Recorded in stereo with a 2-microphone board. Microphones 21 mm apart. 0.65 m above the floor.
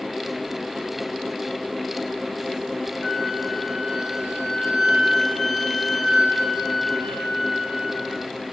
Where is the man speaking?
I don't hear a man speaking.